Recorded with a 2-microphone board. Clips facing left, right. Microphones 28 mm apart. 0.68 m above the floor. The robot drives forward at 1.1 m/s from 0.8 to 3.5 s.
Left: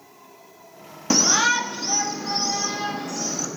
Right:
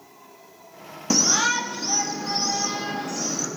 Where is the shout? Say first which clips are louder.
Left 2 dB; 20° left (ahead or behind), 0.5 m; by 3.5 s 5° left (ahead or behind), 3 m.